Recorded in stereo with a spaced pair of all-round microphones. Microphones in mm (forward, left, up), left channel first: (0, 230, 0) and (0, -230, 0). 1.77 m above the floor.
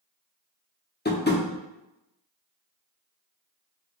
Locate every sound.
1.1 s tapping: 20° left (ahead or behind), 0.7 m